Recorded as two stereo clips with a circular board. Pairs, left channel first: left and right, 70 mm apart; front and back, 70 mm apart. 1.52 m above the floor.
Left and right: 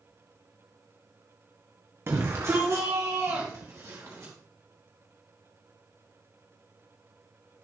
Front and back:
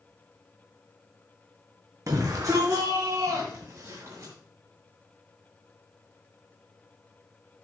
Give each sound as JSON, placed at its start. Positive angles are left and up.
{"t": 2.1, "sound": "a shout", "azimuth_deg": -140, "distance_m": 1.4}